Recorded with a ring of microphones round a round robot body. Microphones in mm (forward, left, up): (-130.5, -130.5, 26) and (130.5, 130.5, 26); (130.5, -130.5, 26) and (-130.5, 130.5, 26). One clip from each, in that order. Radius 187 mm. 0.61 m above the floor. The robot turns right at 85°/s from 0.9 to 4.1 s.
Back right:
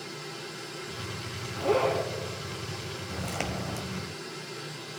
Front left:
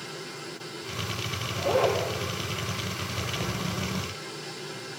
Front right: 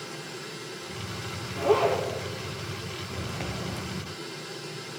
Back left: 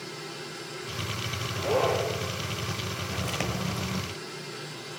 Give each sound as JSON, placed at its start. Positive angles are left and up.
{"t": 1.6, "sound": "a zipper", "azimuth_deg": -95, "distance_m": 8.5}
{"t": 3.1, "sound": "footsteps", "azimuth_deg": 160, "distance_m": 1.8}